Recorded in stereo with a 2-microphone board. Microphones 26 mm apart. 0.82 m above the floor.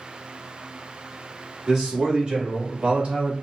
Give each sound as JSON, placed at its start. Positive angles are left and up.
{"t": 1.7, "sound": "a man speaking", "side_deg": -30, "distance_m": 1.8}